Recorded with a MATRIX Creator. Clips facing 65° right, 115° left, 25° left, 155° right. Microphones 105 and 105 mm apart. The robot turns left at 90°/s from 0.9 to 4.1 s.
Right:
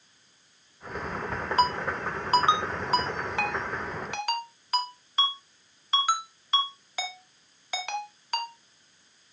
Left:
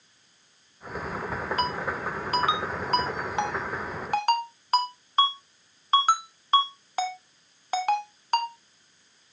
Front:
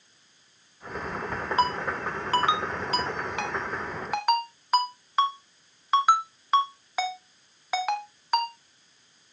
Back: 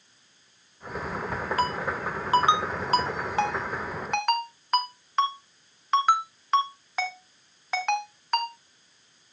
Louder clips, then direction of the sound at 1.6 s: Right 6 dB, front 3 dB; 25° right.